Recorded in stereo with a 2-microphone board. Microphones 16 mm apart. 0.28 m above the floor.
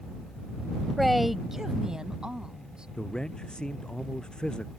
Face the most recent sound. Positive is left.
turn(degrees=60)  # may be behind; listen again after turning